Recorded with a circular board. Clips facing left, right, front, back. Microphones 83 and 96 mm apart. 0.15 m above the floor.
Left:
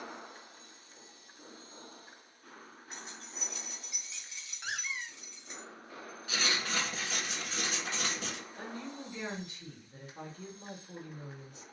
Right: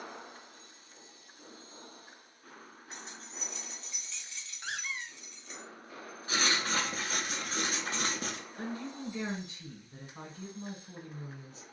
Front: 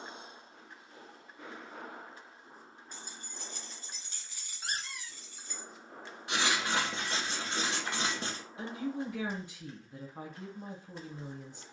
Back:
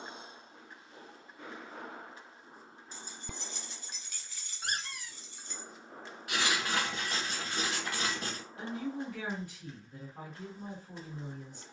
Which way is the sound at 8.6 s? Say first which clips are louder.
Right 5 dB, front 1 dB; 55° right.